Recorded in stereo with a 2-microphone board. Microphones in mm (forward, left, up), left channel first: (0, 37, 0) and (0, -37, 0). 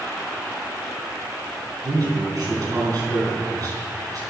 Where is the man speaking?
55° right (ahead or behind), 4 m.